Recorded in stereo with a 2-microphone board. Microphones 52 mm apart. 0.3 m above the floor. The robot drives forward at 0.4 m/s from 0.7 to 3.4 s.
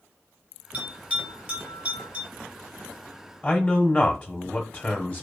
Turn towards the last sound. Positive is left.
turn(degrees=20)  # may be behind; listen again after turning